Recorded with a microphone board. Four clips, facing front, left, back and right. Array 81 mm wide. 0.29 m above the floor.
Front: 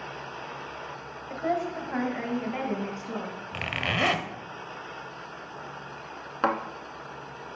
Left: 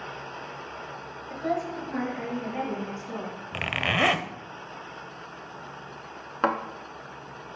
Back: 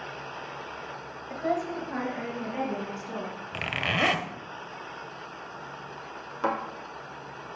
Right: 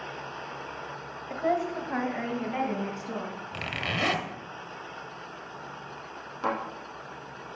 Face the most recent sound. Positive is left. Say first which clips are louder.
# left 4 dB, front 2 dB
turn(degrees=55)